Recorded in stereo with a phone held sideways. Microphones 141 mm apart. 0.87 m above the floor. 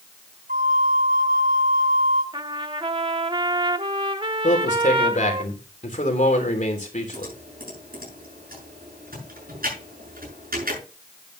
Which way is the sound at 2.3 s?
35° right (ahead or behind).